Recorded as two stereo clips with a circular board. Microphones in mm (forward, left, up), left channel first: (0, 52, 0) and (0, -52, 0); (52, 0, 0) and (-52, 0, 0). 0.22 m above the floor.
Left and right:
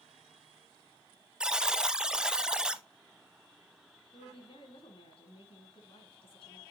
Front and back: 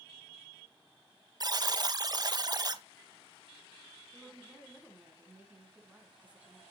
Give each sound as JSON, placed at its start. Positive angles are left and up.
{"t": 1.4, "sound": "a buzzer", "azimuth_deg": -170, "distance_m": 0.6}
{"t": 4.1, "sound": "a woman speaking", "azimuth_deg": 105, "distance_m": 2.5}